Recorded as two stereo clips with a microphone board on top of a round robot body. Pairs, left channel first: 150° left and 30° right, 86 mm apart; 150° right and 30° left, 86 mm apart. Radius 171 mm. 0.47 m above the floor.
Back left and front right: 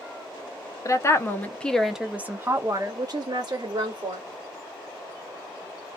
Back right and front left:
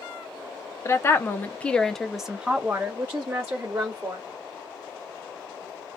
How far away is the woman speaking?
About 0.9 m.